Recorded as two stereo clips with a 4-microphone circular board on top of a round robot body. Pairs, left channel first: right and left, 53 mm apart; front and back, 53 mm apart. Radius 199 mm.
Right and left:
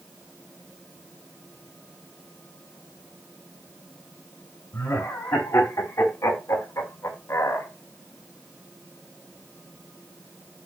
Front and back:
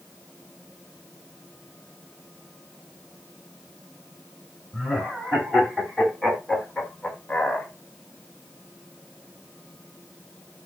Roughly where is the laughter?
Right.